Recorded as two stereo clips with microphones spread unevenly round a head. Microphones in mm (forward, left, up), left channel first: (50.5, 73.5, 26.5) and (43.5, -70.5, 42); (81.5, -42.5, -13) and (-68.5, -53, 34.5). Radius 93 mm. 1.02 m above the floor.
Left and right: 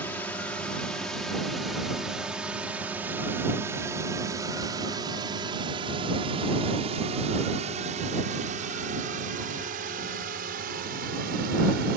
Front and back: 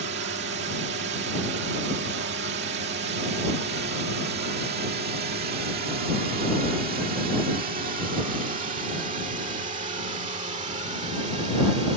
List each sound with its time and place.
0.0 s a drone: 165° left; by 12.0 s 125° right